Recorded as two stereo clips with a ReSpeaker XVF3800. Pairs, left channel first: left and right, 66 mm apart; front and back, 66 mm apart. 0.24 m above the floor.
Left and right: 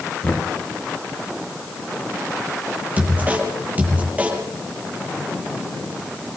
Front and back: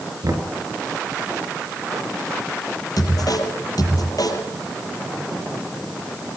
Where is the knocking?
155° left, 3.5 m.